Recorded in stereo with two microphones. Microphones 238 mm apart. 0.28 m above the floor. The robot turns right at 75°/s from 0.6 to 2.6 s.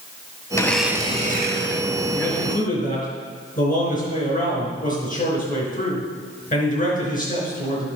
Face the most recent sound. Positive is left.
turn(degrees=40)